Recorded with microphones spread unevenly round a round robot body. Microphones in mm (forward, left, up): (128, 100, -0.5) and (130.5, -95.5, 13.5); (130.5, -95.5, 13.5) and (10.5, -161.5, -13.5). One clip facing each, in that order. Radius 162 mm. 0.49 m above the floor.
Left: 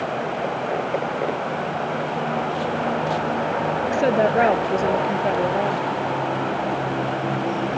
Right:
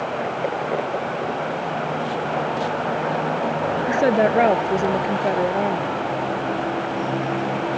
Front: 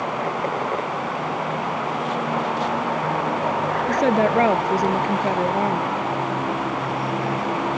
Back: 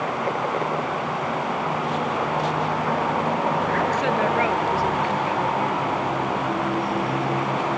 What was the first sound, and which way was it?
A woman speaking, 15° right.